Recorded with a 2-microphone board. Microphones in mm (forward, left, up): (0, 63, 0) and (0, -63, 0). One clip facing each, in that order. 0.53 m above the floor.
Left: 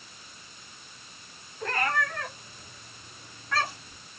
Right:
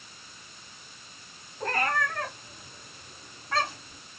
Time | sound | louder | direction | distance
1.6 | a cat meowing | right 1 dB | 40° right (ahead or behind) | 8 m